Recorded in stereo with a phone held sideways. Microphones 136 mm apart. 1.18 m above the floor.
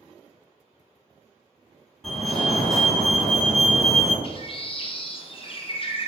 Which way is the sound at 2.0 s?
5° left (ahead or behind).